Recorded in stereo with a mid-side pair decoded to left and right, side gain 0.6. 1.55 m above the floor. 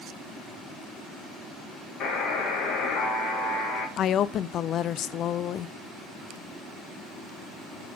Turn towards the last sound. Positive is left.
turn(degrees=50)